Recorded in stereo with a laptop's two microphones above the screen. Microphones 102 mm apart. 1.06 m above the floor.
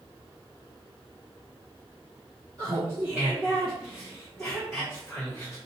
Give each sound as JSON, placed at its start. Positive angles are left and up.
{"t": 2.6, "sound": "laughter", "side_deg": -35, "distance_m": 0.9}